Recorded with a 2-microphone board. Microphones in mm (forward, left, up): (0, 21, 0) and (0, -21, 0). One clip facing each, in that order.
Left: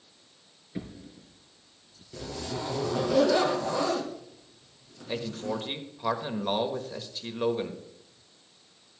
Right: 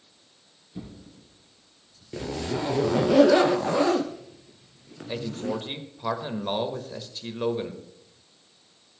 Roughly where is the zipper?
Right.